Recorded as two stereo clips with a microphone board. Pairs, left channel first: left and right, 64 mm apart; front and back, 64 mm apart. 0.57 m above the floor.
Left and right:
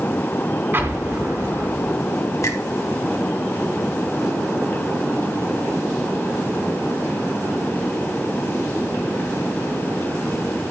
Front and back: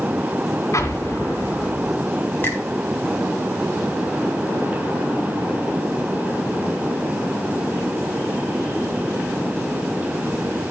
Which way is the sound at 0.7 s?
35° right.